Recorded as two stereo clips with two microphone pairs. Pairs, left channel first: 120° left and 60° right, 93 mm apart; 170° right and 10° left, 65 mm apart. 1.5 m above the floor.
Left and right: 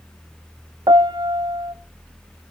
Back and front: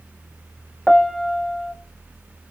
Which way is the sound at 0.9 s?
75° right.